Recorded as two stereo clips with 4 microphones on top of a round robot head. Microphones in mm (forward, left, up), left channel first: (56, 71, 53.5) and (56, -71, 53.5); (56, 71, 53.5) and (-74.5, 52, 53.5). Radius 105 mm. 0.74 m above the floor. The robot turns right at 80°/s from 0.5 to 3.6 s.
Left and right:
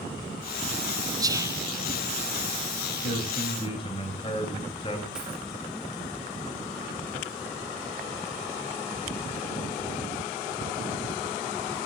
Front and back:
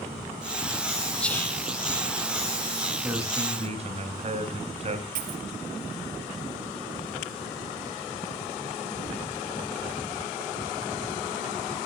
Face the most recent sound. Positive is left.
turn(degrees=-175)